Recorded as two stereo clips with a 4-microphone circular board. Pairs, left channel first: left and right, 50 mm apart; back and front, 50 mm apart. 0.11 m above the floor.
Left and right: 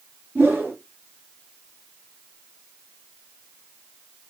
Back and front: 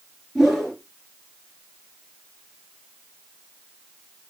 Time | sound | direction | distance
0.3 | a whoosh | 90° right | 2 m